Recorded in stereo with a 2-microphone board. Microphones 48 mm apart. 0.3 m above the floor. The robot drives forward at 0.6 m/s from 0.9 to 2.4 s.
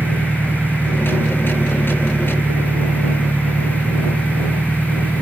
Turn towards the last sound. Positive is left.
turn(degrees=-50)  # may be behind; listen again after turning